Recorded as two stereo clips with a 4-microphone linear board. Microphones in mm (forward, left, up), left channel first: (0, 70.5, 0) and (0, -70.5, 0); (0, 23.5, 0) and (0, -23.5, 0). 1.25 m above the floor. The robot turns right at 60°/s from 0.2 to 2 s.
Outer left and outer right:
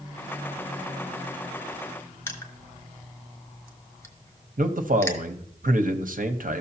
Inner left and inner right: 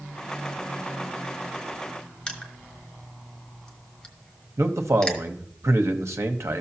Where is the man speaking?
70° right (ahead or behind), 0.9 m.